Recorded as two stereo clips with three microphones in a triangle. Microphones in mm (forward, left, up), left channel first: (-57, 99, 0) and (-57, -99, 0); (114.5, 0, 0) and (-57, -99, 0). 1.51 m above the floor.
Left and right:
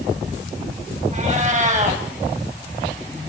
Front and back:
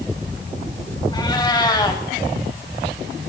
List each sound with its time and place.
1.1 s a cat meowing: 40° right, 4.5 m